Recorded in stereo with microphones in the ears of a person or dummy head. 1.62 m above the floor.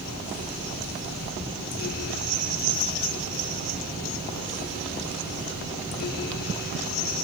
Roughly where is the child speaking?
I don't hear a child speaking.